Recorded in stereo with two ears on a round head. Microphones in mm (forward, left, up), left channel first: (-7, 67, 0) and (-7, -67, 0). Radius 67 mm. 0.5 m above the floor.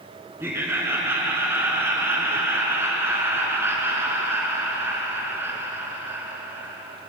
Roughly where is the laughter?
Centre.